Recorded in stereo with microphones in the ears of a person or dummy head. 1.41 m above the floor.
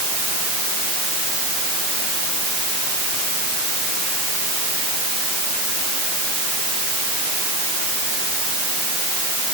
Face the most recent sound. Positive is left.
No sound to turn to.